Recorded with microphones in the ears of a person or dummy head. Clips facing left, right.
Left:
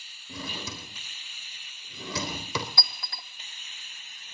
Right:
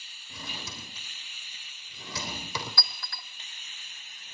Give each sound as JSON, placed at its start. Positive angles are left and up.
{"t": 0.3, "sound": "a drawer", "side_deg": 65, "distance_m": 3.5}
{"t": 2.8, "sound": "a clink", "side_deg": 25, "distance_m": 1.3}